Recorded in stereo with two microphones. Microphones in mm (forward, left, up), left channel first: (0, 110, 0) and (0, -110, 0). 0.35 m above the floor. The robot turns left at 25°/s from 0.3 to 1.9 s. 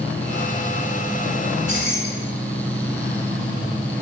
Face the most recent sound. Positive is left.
turn(degrees=-55)  # may be behind; listen again after turning